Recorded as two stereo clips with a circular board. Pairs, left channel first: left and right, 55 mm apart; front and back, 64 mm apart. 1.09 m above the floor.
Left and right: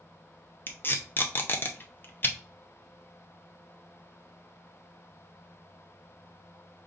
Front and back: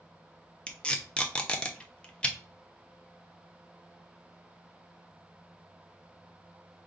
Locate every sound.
0.7 s tape being pulled: 65° left, 0.6 m